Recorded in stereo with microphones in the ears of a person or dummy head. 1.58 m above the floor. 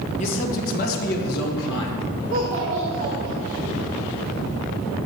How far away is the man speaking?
About 1.5 m.